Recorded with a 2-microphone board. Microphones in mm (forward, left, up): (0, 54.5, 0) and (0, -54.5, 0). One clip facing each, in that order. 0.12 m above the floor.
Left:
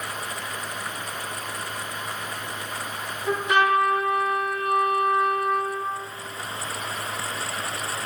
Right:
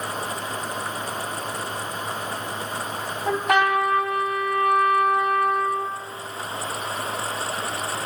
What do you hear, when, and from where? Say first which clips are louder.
3.3 s a trumpet: right 1 dB; 70° right (ahead or behind), 1.4 m